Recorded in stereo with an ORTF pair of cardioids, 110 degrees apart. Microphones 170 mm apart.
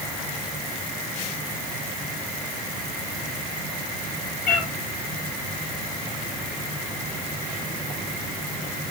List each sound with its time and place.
4.5 s a cat meowing: 50° left, 5.5 m